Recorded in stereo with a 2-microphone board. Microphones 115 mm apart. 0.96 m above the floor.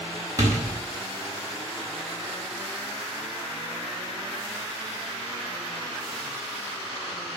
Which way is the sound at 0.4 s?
30° right (ahead or behind).